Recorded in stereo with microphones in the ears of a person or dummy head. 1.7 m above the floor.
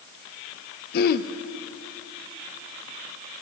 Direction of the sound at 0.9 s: 55° left (ahead or behind).